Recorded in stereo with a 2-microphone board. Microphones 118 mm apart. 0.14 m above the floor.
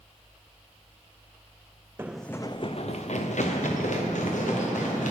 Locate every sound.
2.0 s running footsteps: 20° right (ahead or behind), 0.5 m; by 5.1 s 85° left, 3 m